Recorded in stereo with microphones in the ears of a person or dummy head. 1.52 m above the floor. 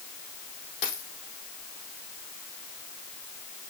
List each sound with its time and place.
0.8 s a dropped coin: 45° left (ahead or behind), 3.5 m